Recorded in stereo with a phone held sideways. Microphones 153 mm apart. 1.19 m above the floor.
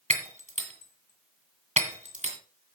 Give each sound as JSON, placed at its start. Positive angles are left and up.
{"t": 0.1, "sound": "breaking glass", "side_deg": -50, "distance_m": 2.0}